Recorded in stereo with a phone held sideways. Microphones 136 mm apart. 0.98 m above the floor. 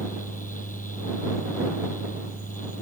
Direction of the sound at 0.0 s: 75° left (ahead or behind).